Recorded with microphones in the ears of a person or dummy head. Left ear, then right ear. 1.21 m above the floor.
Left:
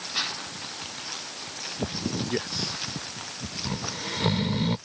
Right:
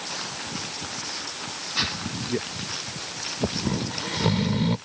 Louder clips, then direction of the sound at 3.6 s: Right 3 dB; 15° left (ahead or behind).